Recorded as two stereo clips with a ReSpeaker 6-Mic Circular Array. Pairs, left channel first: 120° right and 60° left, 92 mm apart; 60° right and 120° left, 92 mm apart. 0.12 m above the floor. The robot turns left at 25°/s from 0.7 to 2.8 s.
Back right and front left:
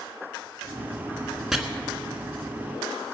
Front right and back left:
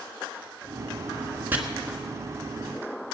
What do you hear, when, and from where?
1.5 s chopping: 145° left, 1.4 m